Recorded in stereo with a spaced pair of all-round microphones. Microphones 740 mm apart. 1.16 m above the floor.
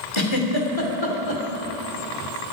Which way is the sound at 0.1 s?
40° left (ahead or behind).